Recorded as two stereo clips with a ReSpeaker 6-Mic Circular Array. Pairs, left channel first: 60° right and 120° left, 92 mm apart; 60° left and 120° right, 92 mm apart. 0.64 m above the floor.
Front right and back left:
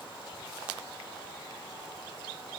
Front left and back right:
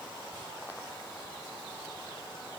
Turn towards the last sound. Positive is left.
No sound to turn to.